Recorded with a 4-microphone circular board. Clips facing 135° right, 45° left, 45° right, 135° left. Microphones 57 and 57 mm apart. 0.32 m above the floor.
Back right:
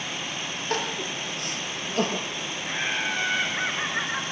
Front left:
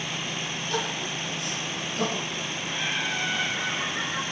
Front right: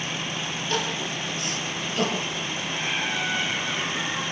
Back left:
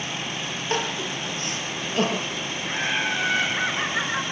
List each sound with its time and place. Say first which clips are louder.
0.7 s crying: back right 2 dB, back left 2 dB; 165° right, 5.5 m
2.6 s laughter: back right 2 dB, back left 4 dB; 170° left, 4.5 m